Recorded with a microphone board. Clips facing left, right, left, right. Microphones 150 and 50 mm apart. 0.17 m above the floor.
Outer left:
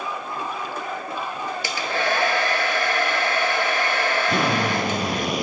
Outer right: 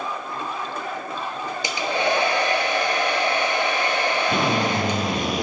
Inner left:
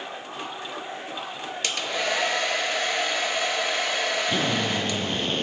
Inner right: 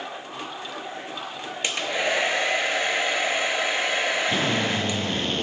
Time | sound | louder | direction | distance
1.6 | a hair dryer | outer right 3 dB, inner right 2 dB | 20° right (ahead or behind) | 0.6 m
4.3 | a drill | even, inner right 1 dB | 5° left (ahead or behind) | 2 m